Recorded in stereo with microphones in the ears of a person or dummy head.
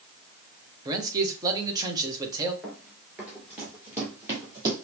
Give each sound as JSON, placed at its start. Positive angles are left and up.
{"t": 0.8, "sound": "a man speaking", "side_deg": -20, "distance_m": 1.4}
{"t": 2.6, "sound": "running footsteps", "side_deg": 0, "distance_m": 1.9}